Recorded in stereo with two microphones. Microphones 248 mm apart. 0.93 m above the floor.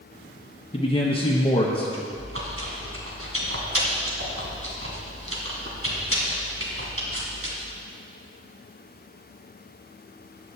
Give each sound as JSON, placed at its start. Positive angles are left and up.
{"t": 0.7, "sound": "a man speaking", "side_deg": 20, "distance_m": 1.0}
{"t": 2.1, "sound": "chewing", "side_deg": -60, "distance_m": 2.5}